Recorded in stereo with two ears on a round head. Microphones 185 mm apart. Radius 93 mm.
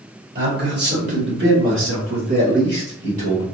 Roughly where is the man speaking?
Right.